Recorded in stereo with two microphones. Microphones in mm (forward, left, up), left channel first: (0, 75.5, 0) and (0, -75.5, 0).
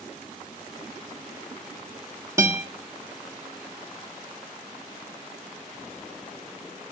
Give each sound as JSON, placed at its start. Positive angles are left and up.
{"t": 2.4, "sound": "a guitar", "side_deg": -20, "distance_m": 1.2}